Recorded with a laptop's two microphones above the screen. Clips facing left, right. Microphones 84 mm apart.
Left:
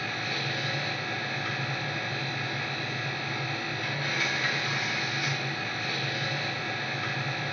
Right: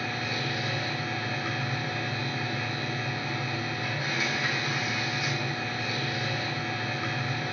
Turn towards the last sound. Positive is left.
turn(degrees=-20)  # may be behind; listen again after turning